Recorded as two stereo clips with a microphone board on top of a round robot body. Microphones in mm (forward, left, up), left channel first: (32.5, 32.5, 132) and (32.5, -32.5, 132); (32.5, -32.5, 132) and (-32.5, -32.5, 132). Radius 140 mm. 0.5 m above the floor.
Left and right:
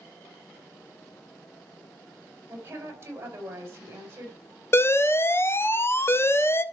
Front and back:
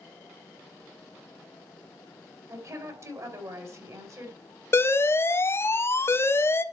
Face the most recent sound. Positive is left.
turn(degrees=40)